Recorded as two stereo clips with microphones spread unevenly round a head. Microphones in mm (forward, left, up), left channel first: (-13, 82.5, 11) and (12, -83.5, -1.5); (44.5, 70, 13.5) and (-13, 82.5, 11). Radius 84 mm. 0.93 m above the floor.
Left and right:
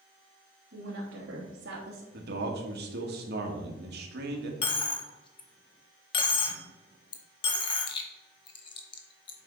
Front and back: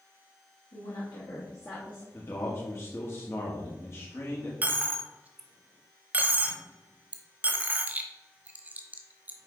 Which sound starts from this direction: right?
A man speaking, at 2.1 s.